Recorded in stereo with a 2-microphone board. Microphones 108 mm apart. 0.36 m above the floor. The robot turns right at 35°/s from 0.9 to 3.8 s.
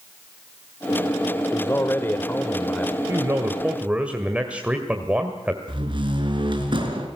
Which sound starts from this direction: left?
A man speaking, at 1.5 s.